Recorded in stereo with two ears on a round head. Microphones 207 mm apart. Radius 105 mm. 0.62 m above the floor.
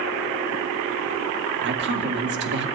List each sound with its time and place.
1.6 s a woman speaking: 50° right (ahead or behind), 1.9 m